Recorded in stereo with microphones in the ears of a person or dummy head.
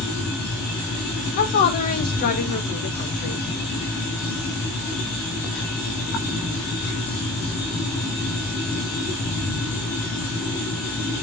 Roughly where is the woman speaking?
Left.